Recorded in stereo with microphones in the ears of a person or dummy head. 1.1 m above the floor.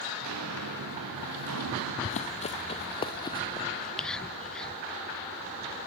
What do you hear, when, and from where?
0.2 s footsteps: 80° right, 6.5 m; by 1.9 s 70° right (ahead or behind), 5.5 m
2.0 s running footsteps: 35° left (ahead or behind), 2.0 m; by 3.6 s 20° left (ahead or behind), 2.5 m
3.7 s whispering: 10° left (ahead or behind), 0.7 m